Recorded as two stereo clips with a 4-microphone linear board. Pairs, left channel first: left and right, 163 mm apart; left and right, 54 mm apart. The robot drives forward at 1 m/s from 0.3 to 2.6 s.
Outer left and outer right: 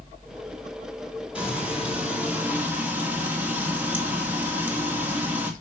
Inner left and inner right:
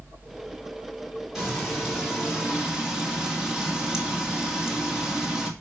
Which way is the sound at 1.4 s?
10° right (ahead or behind).